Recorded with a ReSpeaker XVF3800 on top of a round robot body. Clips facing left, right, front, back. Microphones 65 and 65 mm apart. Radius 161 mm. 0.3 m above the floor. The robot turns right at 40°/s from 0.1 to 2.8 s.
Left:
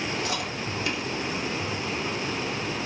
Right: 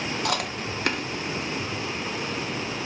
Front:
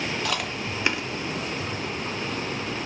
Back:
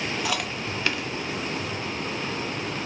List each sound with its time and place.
0.2 s chewing: 95° right, 0.7 m; by 1.0 s 65° right, 0.7 m